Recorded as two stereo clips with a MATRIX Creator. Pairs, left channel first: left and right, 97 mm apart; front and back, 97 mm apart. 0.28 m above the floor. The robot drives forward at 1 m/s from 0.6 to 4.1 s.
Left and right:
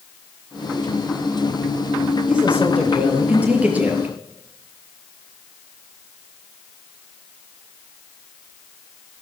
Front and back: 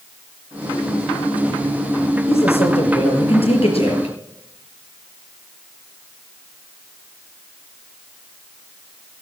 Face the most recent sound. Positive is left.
turn(degrees=-15)